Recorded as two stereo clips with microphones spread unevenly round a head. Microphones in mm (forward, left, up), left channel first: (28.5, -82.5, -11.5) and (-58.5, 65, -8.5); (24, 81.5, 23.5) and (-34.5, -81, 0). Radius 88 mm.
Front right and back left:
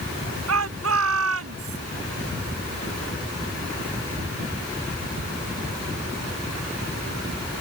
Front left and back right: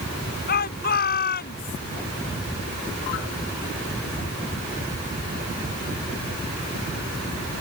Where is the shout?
110° left.